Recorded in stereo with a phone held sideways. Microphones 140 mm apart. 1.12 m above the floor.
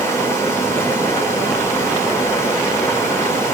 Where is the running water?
20° left (ahead or behind), 2.5 m.